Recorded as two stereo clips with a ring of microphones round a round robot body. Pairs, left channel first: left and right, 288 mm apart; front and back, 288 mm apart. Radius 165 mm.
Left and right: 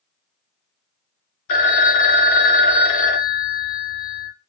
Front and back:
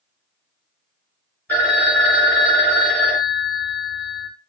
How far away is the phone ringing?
About 0.8 m.